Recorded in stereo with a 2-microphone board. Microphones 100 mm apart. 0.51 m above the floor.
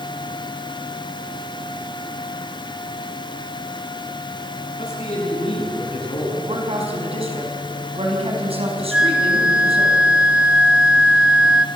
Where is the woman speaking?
75° right (ahead or behind), 5 m.